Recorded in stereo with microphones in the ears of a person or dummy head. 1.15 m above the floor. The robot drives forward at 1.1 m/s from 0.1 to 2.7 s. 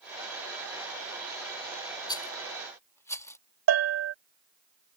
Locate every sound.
2.1 s a rattle: 20° left (ahead or behind); by 3.4 s 15° left (ahead or behind)
3.7 s a bell: 80° right